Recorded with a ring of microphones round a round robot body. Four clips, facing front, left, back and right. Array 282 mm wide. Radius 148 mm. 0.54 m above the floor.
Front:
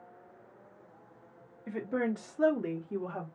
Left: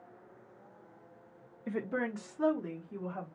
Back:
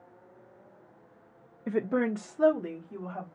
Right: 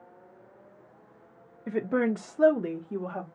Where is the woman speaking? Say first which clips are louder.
Right 8 dB, back 5 dB; 155° right, 0.8 m; by 3.3 s 55° right, 1.5 m.